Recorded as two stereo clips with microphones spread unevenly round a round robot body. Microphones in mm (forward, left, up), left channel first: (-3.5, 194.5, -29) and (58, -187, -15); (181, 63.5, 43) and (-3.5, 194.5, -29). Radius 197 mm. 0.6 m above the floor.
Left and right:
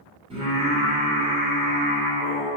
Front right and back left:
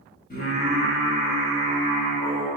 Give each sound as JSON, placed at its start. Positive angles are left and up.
{"t": 0.3, "sound": "singing", "azimuth_deg": -20, "distance_m": 1.1}